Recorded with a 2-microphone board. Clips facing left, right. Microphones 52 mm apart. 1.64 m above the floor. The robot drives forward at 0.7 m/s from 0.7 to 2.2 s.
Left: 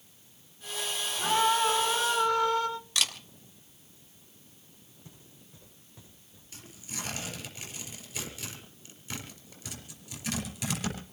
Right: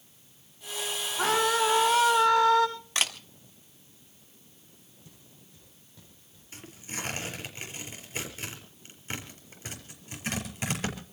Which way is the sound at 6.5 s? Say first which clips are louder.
Right 3 dB; 35° right (ahead or behind).